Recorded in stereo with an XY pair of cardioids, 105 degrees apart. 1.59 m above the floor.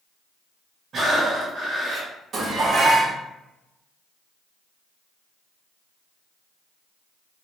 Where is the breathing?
50° right, 1.7 m.